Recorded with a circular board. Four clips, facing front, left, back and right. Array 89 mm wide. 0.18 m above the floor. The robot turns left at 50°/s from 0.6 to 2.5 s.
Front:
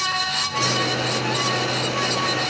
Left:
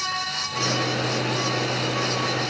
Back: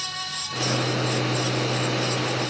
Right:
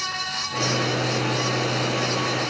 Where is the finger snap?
No finger snap in this recording.